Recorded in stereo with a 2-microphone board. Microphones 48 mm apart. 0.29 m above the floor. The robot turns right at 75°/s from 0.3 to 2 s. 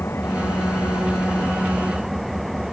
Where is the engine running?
55° left; by 2.7 s straight behind.